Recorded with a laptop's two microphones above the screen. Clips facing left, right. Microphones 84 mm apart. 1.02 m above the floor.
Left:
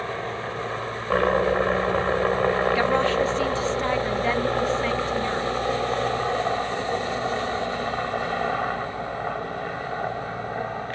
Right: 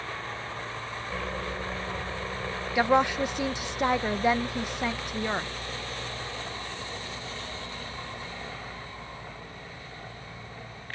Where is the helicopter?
75° left (ahead or behind).